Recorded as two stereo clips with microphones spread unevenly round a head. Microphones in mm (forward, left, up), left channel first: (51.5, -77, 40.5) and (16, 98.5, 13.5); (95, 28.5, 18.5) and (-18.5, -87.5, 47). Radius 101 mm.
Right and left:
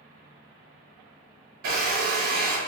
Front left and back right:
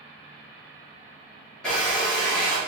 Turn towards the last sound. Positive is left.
turn(degrees=140)